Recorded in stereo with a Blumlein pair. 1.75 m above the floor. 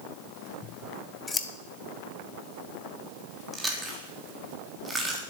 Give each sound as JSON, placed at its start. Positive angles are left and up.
{"t": 0.6, "sound": "scissors", "azimuth_deg": 15, "distance_m": 1.5}
{"t": 3.5, "sound": "chewing", "azimuth_deg": -10, "distance_m": 3.5}